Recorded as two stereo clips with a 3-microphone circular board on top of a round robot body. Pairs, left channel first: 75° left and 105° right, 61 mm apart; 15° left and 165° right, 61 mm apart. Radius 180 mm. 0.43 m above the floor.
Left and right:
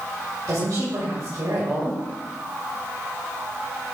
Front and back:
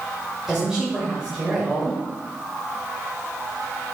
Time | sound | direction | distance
0.5 | a woman speaking | 85° right | 3 m